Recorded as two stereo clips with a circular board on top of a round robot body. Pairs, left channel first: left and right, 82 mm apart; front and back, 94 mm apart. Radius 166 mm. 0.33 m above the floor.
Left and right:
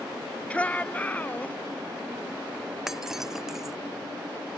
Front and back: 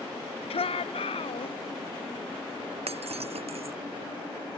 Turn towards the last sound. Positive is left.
turn(degrees=-175)